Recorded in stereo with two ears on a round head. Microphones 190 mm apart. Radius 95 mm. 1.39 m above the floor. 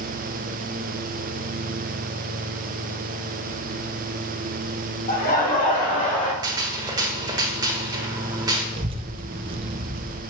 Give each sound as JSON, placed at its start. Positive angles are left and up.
{"t": 5.1, "sound": "laughter", "side_deg": 45, "distance_m": 2.0}
{"t": 6.4, "sound": "a gunshot", "side_deg": -20, "distance_m": 1.3}
{"t": 8.8, "sound": "a child speaking", "side_deg": -25, "distance_m": 0.6}